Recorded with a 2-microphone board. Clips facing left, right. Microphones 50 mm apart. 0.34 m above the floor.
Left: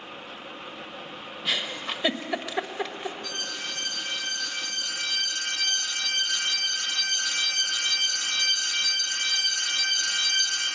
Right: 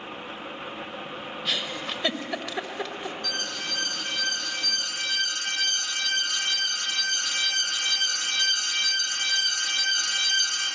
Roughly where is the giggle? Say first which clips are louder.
Left 1 dB; centre.